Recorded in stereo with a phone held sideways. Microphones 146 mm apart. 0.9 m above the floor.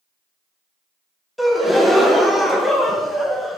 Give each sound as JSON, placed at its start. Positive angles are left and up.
{"t": 1.4, "sound": "a gasp", "side_deg": 0, "distance_m": 0.9}